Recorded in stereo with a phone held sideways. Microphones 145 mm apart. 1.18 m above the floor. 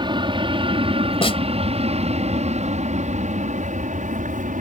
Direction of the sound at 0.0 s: 35° right (ahead or behind).